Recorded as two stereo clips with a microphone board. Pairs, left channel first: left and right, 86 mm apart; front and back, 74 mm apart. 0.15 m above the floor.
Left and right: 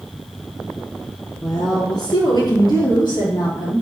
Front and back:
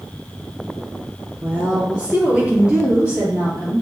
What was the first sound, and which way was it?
A woman speaking, 115° left.